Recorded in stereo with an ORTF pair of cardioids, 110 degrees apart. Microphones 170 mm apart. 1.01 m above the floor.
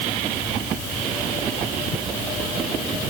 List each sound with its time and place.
Only background noise.